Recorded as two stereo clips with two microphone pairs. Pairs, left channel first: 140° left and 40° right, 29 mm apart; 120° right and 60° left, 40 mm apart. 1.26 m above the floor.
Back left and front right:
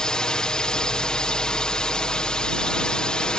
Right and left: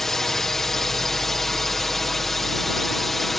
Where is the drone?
170° left; by 3.4 s 165° left.